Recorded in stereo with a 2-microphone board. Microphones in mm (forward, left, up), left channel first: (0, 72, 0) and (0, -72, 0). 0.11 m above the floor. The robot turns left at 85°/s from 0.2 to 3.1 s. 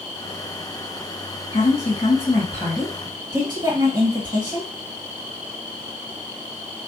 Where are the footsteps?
No footsteps in this recording.